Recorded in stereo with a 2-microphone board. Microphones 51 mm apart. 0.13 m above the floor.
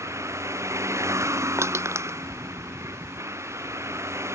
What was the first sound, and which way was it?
A vehicle, 85° right.